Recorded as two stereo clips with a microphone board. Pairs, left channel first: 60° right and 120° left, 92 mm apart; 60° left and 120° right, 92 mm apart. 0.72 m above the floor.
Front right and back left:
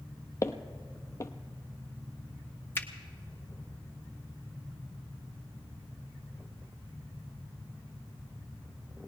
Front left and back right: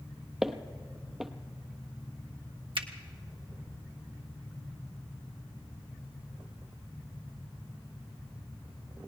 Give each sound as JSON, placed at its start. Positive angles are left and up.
{"t": 0.4, "sound": "footsteps", "azimuth_deg": -35, "distance_m": 0.8}
{"t": 2.8, "sound": "a finger snap", "azimuth_deg": -125, "distance_m": 1.2}